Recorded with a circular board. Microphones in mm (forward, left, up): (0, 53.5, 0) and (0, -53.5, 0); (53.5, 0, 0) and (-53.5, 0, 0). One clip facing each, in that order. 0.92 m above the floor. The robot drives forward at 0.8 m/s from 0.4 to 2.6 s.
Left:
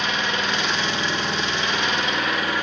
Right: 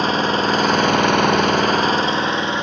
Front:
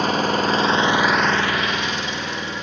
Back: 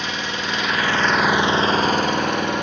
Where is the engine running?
40° right, 0.9 m; by 2.6 s 155° right, 1.3 m.